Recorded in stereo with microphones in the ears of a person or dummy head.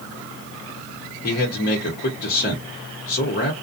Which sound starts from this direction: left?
A man speaking, at 1.2 s.